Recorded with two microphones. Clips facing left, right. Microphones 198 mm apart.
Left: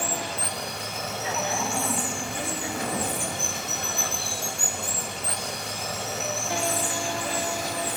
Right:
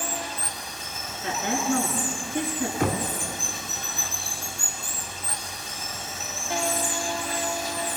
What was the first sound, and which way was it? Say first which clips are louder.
Running water: left 2 dB; 70° left (ahead or behind).